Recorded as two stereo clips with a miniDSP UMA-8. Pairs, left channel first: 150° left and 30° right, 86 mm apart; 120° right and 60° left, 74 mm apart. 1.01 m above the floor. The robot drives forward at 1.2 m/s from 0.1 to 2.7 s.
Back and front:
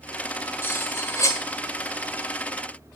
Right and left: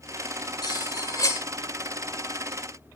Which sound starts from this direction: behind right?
Cutlery clinking, at 0.6 s.